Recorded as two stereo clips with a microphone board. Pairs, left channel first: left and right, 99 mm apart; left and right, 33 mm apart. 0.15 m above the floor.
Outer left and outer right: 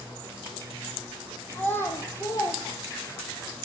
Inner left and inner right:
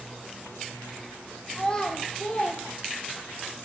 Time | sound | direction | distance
1.5 | a child speaking | 15° left (ahead or behind) | 3.5 m